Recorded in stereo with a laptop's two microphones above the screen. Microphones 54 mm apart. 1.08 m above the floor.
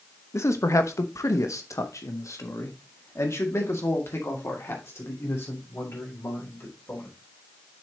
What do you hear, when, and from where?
0.3 s a man speaking: 60° left (ahead or behind), 0.9 m; by 7.1 s 50° left (ahead or behind), 4 m